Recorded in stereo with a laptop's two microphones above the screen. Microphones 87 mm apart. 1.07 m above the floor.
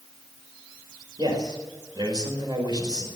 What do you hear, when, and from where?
1.2 s a man speaking: 55° right (ahead or behind), 5 m